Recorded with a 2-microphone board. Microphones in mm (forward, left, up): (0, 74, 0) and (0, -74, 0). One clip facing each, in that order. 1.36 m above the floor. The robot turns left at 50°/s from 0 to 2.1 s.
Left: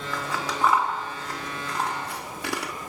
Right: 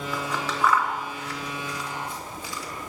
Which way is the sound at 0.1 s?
5° right (ahead or behind).